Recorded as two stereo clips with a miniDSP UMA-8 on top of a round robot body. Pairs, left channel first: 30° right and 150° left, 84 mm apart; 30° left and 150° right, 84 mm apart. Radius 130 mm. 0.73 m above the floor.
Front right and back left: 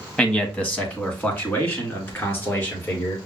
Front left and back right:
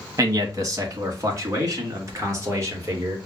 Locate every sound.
0.2 s a man speaking: 110° right, 1.1 m; by 3.2 s 90° right, 2.5 m